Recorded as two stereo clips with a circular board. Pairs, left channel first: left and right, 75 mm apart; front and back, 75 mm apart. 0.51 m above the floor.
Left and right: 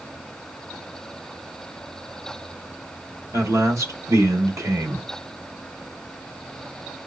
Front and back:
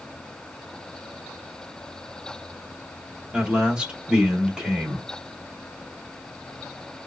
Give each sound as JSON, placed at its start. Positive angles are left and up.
{"t": 3.3, "sound": "a man speaking", "azimuth_deg": -105, "distance_m": 1.2}